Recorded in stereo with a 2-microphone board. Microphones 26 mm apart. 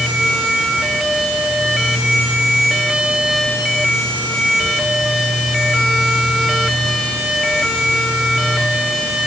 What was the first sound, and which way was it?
Only background noise.